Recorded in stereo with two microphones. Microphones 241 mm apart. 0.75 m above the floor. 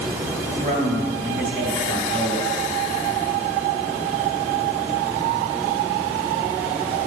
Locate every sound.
0.5 s a man speaking: 45° right (ahead or behind), 2.5 m